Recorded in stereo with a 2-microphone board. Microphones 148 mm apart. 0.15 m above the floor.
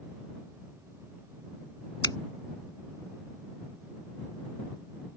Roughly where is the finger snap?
Left.